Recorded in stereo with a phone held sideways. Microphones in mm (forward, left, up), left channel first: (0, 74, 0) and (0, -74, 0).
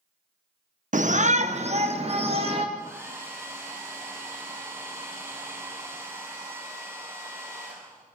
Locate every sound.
0.9 s a shout: 60° right (ahead or behind), 0.6 m; by 2.6 s 40° right (ahead or behind), 1.9 m
2.8 s a hair dryer: 20° right (ahead or behind), 7 m